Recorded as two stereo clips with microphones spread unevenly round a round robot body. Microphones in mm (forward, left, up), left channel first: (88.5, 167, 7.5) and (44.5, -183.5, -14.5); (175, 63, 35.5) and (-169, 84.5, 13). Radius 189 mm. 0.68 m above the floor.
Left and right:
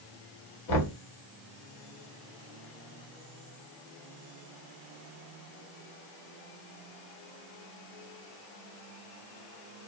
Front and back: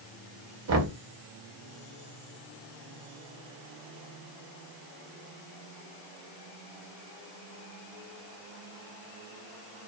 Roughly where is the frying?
I don't hear frying.